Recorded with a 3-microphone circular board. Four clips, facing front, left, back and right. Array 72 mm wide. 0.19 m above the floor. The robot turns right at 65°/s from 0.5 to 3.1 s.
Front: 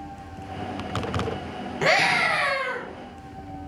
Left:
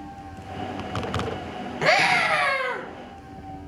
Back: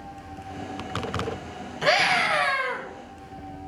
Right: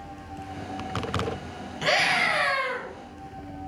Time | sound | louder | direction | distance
1.8 | a scream | left 4 dB, even | 35° left | 5 m